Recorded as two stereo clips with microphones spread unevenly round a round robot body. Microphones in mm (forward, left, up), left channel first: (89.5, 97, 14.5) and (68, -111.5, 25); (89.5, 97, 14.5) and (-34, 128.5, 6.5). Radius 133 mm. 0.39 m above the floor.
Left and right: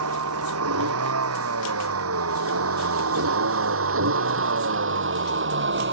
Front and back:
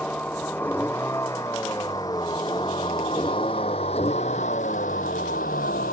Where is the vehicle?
100° right; by 5.9 s 65° right.